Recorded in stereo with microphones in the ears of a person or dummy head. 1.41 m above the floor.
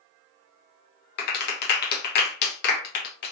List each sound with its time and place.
1.2 s a clap: 55° left (ahead or behind), 1.1 m